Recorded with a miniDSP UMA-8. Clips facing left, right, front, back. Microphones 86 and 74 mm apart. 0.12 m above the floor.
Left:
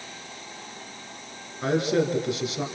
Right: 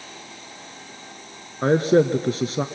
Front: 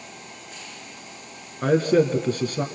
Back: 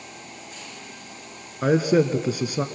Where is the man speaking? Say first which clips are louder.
Right 6 dB, even; 100° right, 1.3 m.